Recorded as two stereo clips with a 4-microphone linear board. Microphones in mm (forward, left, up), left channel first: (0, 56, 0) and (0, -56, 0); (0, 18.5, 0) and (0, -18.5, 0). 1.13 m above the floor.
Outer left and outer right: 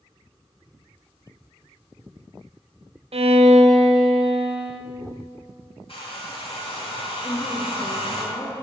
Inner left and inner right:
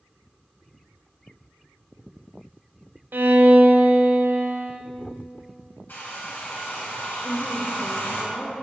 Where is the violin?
65° right (ahead or behind), 0.6 m.